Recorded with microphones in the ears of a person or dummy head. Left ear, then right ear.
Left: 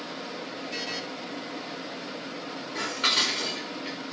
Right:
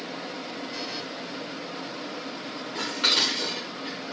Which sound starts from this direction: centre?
Dishes clattering, at 2.8 s.